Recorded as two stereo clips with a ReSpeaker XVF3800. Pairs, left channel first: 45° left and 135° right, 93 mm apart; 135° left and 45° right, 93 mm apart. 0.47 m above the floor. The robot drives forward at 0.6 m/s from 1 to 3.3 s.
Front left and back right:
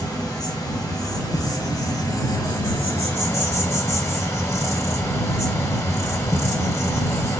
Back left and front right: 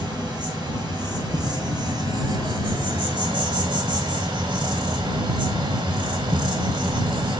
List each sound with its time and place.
0.0 s an insect: 5° right, 1.9 m; by 7.4 s 15° right, 0.6 m